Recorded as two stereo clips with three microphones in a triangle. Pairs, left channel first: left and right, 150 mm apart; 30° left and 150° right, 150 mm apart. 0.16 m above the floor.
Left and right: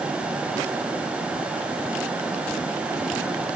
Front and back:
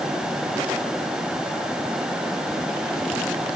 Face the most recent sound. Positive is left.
No sound to turn to.